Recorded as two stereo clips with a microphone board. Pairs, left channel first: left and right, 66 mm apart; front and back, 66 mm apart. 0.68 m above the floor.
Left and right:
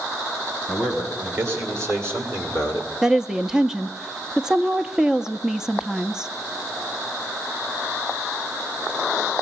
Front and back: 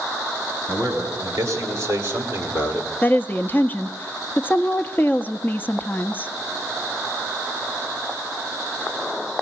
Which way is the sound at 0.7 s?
145° right.